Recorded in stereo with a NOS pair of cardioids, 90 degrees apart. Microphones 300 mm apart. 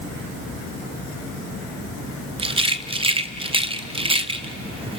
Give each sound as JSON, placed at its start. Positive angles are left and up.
{"t": 2.4, "sound": "a rattle", "azimuth_deg": -15, "distance_m": 0.8}